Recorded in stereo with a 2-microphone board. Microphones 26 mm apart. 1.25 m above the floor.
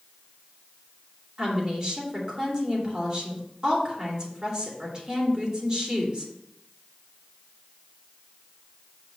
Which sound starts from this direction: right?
A woman speaking, at 1.4 s.